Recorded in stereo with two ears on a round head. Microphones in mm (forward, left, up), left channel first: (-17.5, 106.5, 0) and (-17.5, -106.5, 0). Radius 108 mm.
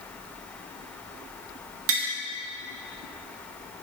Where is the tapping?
60° right (ahead or behind), 1.9 m.